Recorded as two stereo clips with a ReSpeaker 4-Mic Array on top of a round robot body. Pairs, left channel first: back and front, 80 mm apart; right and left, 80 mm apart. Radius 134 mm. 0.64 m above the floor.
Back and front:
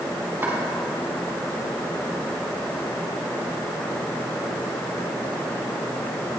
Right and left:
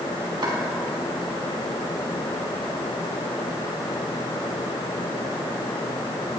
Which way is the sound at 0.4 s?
60° left.